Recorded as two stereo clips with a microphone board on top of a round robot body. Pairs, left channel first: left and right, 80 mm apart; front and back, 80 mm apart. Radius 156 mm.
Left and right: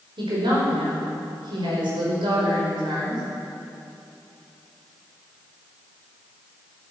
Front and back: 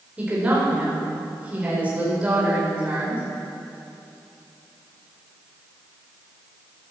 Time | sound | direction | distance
0.2 | a woman speaking | 105° right | 5 m